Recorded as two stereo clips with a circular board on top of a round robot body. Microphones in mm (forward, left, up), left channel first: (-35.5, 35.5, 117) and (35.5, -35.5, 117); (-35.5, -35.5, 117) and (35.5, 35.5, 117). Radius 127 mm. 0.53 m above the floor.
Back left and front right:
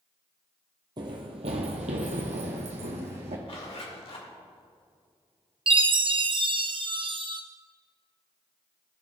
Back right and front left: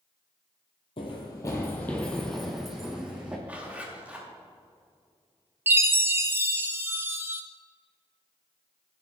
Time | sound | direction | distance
1.0 | running footsteps | 95° right | 0.9 m
3.5 | a zipper | 120° left | 2.5 m
5.7 | a chime | 20° right | 1.1 m